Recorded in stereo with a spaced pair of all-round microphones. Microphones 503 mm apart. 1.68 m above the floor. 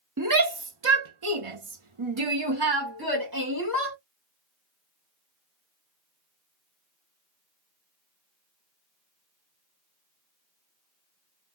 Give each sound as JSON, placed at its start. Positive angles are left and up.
{"t": 0.2, "sound": "a shout", "side_deg": -35, "distance_m": 1.1}